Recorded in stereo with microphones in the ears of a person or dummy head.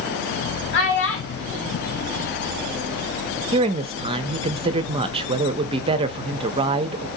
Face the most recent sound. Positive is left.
turn(degrees=-30)  # may be behind; listen again after turning